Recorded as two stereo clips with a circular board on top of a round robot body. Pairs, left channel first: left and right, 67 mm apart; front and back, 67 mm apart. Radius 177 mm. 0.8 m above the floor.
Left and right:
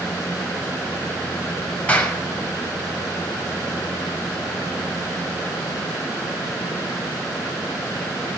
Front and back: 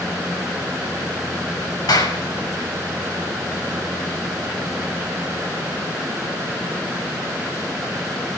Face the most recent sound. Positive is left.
turn(degrees=20)